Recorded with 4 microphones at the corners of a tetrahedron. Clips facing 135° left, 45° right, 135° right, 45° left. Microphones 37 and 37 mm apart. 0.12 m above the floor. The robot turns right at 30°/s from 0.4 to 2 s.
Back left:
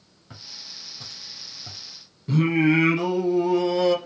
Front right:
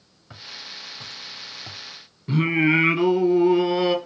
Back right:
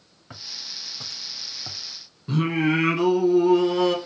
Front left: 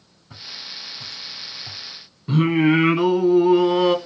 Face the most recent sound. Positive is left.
turn(degrees=-10)